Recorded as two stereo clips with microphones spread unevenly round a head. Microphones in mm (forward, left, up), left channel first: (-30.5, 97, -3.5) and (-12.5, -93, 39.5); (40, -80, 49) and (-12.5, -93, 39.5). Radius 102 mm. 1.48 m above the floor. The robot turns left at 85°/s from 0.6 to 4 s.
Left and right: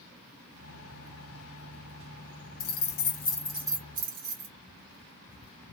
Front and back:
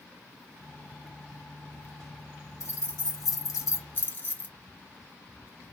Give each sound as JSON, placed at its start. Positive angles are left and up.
{"t": 2.6, "sound": "keys jangling", "azimuth_deg": 80, "distance_m": 1.1}